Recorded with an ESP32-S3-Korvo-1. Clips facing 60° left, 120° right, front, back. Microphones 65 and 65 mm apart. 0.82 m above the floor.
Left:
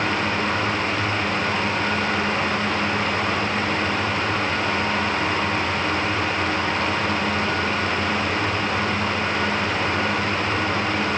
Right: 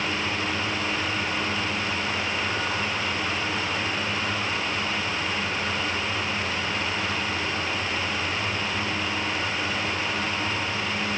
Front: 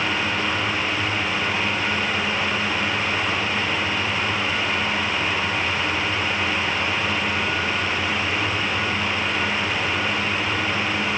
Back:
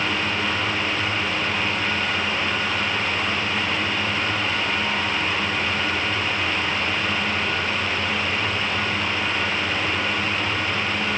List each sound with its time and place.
Only background noise.